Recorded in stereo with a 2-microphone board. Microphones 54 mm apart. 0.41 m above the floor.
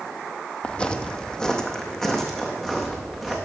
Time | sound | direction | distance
0.6 | footsteps | 20° left (ahead or behind) | 0.6 m